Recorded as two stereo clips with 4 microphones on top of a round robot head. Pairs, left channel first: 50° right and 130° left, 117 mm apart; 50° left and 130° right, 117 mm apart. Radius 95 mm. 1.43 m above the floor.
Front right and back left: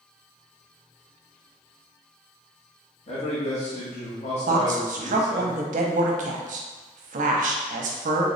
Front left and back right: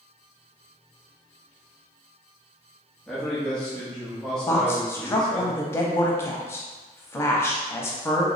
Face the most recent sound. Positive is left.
turn(degrees=120)